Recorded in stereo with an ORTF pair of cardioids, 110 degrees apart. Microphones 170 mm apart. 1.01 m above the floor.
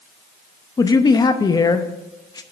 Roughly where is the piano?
No piano in this recording.